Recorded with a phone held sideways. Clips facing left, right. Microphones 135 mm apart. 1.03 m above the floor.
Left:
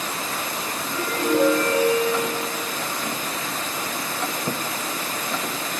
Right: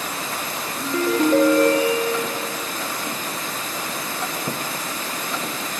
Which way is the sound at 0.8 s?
80° right.